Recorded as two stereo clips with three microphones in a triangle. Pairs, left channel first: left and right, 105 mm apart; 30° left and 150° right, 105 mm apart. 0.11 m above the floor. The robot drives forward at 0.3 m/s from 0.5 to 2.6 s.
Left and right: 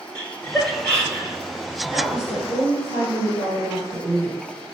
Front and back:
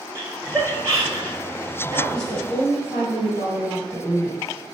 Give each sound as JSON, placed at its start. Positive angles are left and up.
{"t": 0.1, "sound": "laughter", "azimuth_deg": 165, "distance_m": 1.3}
{"t": 1.9, "sound": "a woman speaking", "azimuth_deg": -165, "distance_m": 1.8}